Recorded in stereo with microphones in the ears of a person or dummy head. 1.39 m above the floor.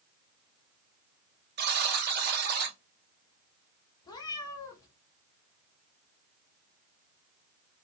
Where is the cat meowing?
25° left (ahead or behind), 1.2 m.